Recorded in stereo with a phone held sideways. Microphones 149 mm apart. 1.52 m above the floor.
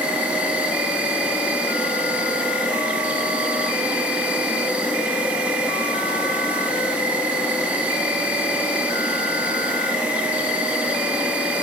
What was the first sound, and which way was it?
An insect, 10° right (ahead or behind).